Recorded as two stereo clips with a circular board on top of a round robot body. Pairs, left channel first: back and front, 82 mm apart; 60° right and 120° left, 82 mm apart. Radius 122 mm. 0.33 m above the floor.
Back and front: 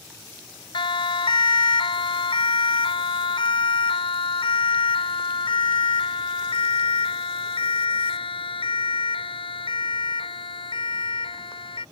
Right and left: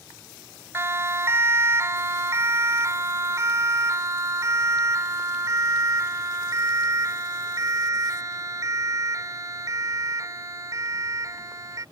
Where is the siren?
Straight behind; by 11.8 s 170° left.